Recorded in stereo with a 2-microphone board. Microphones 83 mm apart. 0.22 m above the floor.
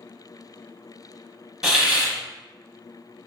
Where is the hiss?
10° right (ahead or behind), 0.7 m.